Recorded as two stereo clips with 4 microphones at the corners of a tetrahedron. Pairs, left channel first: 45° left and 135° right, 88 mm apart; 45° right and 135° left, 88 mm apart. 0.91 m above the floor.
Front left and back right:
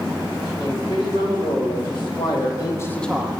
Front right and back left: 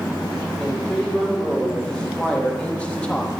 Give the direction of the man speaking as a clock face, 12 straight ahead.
11 o'clock.